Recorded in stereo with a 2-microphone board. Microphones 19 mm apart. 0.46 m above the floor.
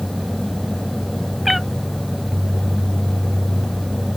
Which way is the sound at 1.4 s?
5° right (ahead or behind).